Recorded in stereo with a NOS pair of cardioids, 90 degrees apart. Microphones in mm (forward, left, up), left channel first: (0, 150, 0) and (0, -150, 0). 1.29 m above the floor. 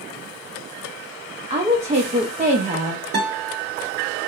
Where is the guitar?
35° right, 1.5 m.